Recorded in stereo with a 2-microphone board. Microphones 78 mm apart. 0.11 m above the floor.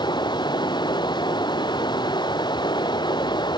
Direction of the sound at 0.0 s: 75° left (ahead or behind).